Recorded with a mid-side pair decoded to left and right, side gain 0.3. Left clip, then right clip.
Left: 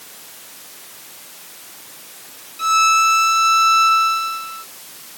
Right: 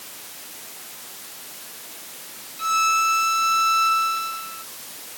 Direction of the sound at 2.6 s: 65° left.